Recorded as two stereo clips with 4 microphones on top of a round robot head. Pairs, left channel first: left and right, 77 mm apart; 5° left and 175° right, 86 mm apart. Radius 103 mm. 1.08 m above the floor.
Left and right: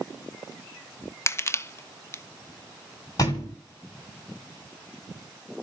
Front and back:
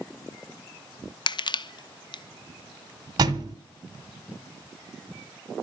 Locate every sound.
1.3 s crushing: 35° left, 1.0 m
3.2 s a thud: 145° left, 1.8 m